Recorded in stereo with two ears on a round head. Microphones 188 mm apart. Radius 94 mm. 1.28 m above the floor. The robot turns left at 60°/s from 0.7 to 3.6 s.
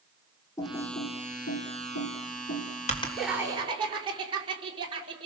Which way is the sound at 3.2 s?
5° left (ahead or behind).